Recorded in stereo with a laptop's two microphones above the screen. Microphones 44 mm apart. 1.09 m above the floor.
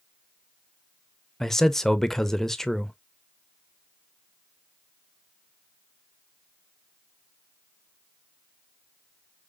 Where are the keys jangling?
No keys jangling in this recording.